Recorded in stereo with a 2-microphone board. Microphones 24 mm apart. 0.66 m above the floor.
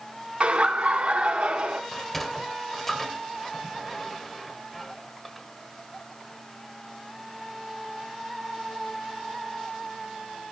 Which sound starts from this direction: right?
Laughter, at 0.4 s.